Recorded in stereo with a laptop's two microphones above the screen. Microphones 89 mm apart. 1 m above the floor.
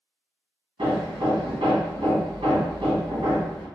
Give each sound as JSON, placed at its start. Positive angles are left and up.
{"t": 0.8, "sound": "hammering", "side_deg": -75, "distance_m": 1.4}